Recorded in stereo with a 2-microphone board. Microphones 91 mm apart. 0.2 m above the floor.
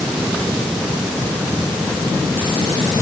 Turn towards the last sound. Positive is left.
No sound to turn to.